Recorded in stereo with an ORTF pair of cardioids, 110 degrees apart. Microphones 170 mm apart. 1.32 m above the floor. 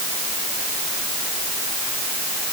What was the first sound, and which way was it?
Only background noise.